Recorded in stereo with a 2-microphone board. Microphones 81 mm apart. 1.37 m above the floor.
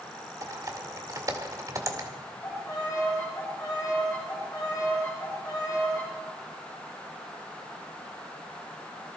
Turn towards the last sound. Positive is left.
turn(degrees=40)  # may be behind; listen again after turning